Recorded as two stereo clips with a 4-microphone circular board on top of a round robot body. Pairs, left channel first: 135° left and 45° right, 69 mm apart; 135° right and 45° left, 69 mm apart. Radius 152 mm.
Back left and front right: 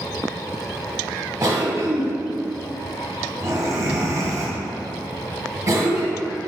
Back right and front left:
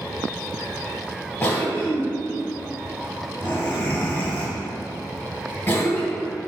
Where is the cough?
95° right, 1.3 m.